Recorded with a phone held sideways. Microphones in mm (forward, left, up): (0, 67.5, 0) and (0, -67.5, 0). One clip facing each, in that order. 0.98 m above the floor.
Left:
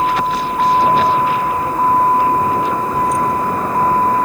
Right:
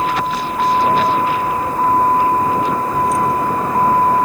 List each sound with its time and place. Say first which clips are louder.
0.0 s a vehicle: left 2 dB; 20° left (ahead or behind); by 4.2 s 10° right (ahead or behind)